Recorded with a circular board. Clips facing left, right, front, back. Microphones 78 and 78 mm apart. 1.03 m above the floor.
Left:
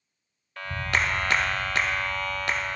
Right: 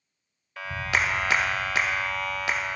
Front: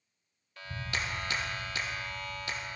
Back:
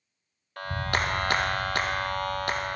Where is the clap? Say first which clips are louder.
Even, back 9 dB; straight behind, 0.6 m.